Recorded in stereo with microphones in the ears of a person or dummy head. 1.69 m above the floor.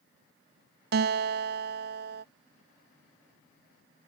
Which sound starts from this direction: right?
A guitar, at 0.9 s.